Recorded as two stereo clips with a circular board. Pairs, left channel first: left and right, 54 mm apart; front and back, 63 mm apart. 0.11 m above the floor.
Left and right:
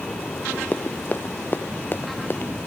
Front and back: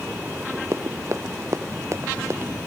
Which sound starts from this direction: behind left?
Running footsteps, at 0.7 s.